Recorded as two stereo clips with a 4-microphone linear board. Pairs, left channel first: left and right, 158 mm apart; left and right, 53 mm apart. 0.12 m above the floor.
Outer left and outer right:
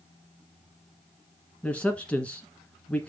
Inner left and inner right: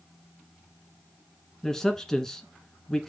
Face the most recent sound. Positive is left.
turn(degrees=10)  # may be behind; listen again after turning